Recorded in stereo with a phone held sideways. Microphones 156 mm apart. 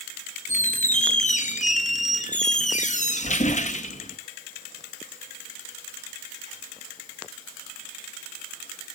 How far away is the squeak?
About 0.8 m.